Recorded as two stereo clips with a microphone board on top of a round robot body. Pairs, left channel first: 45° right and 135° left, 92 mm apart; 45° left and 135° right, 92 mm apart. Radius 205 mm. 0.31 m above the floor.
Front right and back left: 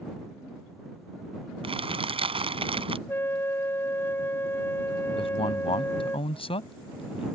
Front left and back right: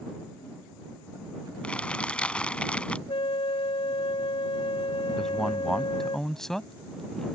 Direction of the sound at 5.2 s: 40° right.